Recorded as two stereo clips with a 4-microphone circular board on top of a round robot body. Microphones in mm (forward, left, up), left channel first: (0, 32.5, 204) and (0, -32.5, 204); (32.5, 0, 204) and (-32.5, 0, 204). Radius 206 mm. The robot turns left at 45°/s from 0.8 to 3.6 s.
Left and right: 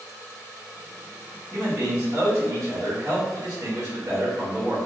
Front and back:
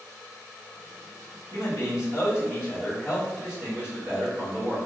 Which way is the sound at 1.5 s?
15° right.